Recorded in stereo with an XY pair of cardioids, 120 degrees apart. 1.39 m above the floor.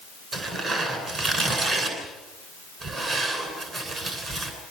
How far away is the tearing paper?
About 9.5 m.